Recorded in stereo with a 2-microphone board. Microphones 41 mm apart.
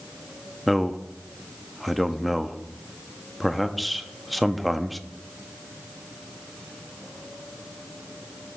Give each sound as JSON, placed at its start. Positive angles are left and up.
{"t": 0.7, "sound": "a man speaking", "side_deg": 0, "distance_m": 0.5}